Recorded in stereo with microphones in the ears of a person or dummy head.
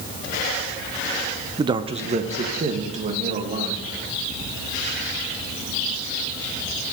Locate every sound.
1.6 s a man speaking: 20° right (ahead or behind), 0.6 m; by 4.0 s 40° right (ahead or behind), 3 m